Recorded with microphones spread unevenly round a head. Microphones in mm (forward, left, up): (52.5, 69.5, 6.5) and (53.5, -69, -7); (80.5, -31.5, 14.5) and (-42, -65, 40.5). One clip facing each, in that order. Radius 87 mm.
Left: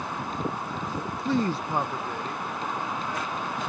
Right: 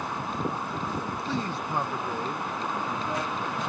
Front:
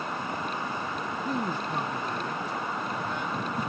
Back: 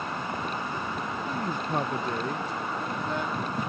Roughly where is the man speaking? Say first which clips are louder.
Left 9 dB, front 2 dB; left.